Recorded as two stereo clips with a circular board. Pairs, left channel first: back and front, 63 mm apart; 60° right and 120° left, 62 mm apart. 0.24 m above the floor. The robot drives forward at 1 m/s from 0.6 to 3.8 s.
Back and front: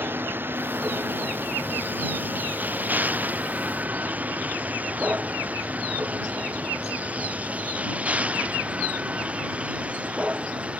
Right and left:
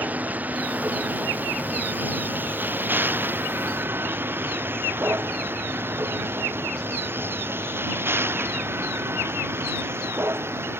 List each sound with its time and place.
0.0 s a vehicle: 55° left; by 10.8 s 70° left